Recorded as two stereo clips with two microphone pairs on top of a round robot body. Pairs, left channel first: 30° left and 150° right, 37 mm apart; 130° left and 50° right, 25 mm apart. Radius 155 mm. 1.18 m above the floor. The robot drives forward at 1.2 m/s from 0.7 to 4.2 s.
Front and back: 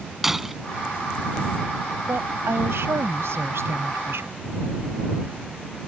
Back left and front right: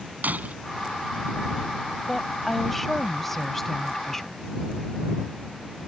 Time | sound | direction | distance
0.2 | breaking glass | 70° right | ?
2.1 | a woman speaking | 145° right | ?